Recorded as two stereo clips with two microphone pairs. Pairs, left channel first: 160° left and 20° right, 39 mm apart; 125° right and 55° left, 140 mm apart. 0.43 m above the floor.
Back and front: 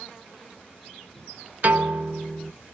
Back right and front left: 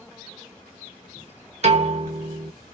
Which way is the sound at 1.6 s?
20° left.